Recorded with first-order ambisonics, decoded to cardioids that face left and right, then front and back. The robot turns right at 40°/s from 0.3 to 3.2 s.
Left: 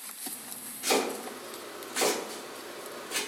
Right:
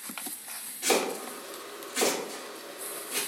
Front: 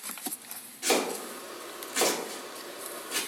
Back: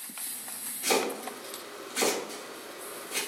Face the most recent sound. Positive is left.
turn(degrees=45)